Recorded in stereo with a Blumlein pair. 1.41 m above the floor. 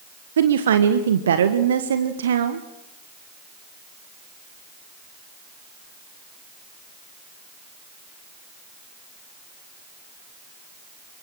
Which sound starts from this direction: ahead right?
A woman speaking, at 0.4 s.